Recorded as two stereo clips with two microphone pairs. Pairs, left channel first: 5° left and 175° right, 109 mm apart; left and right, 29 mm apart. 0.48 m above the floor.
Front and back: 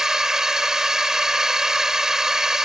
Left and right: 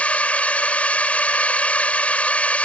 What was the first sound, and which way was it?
A drone, 100° left.